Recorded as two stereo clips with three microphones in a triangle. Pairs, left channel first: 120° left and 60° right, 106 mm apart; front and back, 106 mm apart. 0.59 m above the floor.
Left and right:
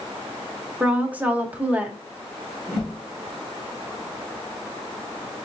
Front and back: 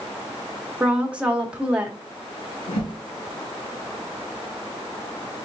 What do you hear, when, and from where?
0.8 s a woman speaking: 120° right, 1.0 m
2.7 s a whoosh: 40° left, 3 m